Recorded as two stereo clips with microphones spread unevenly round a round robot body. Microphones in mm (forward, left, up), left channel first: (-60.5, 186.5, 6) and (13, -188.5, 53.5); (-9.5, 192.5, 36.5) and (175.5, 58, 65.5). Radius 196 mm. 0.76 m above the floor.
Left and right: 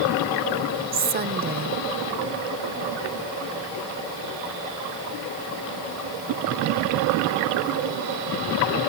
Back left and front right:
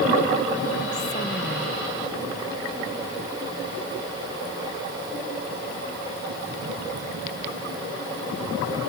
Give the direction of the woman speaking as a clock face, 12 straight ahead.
5 o'clock.